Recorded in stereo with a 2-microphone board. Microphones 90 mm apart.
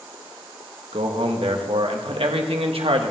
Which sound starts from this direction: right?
A man speaking, at 0.9 s.